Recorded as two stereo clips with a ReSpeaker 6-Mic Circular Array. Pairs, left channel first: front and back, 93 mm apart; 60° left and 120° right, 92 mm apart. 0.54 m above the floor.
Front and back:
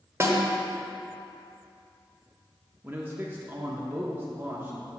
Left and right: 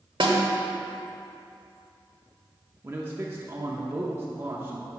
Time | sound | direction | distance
0.2 | a snare drum | 125° right | 1.1 m
2.8 | a man speaking | 145° right | 0.7 m